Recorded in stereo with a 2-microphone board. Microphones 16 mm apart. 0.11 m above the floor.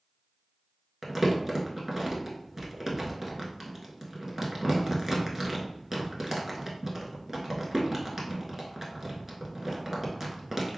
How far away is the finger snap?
I don't hear a finger snap.